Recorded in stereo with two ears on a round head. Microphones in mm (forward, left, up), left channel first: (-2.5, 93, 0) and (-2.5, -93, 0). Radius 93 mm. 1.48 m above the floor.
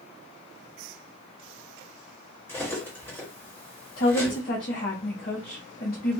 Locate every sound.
2.5 s cutlery clinking: 10° left (ahead or behind), 1.9 m
4.0 s a woman speaking: 45° left (ahead or behind), 0.9 m